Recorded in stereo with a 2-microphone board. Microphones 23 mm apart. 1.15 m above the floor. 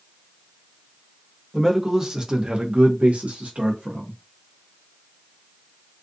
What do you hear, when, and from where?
1.5 s a man speaking: 15° right (ahead or behind), 0.9 m; by 4.2 s 60° right (ahead or behind), 1.0 m